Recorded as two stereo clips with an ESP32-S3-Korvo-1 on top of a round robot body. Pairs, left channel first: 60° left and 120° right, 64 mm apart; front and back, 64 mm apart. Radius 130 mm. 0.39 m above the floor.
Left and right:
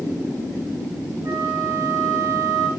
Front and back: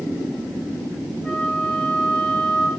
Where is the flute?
80° right, 5.5 m.